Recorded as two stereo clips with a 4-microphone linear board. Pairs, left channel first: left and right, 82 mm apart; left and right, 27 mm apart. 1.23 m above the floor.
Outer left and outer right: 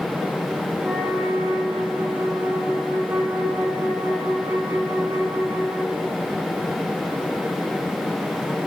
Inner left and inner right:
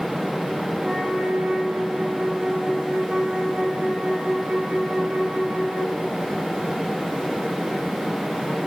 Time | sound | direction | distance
0.8 | a flute | 25° right (ahead or behind) | 4 m